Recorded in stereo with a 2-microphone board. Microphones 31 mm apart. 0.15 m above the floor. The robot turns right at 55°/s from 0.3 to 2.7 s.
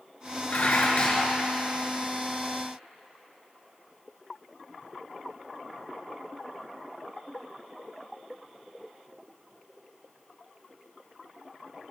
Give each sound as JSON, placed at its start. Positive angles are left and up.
{"t": 0.5, "sound": "dishes clattering", "azimuth_deg": 100, "distance_m": 1.6}